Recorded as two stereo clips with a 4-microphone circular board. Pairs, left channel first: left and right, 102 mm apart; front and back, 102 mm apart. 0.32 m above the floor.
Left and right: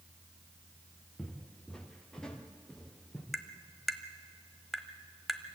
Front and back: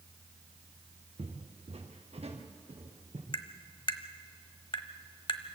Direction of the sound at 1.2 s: 175° left.